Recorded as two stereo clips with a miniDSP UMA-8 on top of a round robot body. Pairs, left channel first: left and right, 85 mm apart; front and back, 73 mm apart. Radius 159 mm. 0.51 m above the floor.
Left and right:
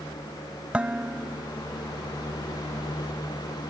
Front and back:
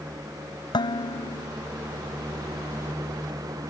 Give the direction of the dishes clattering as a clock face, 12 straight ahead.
12 o'clock.